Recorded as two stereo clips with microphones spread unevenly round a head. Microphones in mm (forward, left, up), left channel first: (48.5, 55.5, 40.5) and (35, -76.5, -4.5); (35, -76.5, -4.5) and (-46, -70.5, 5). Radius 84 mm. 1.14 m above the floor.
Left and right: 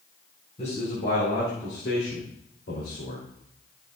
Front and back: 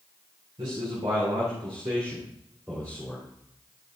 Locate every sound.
0.6 s a man speaking: 140° left, 3.5 m; by 3.2 s 75° left, 3 m